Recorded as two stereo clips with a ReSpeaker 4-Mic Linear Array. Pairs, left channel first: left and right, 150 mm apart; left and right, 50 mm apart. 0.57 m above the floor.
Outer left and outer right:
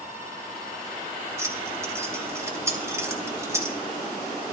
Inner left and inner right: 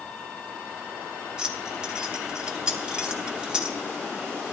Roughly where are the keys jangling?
Centre.